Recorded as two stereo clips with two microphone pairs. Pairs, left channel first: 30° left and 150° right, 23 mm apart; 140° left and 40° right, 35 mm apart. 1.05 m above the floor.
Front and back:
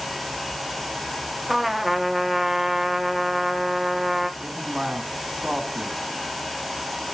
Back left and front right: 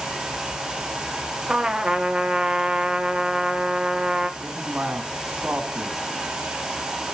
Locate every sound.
1.5 s a trumpet: 80° right, 0.8 m
4.4 s a man speaking: 95° right, 1.5 m